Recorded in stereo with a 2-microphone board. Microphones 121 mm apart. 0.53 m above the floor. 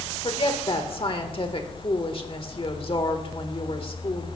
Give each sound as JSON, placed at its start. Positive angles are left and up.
{"t": 0.2, "sound": "a woman speaking", "side_deg": 45, "distance_m": 1.5}